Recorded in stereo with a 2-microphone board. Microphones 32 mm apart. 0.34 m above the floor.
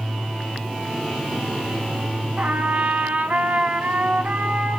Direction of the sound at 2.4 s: 60° right (ahead or behind).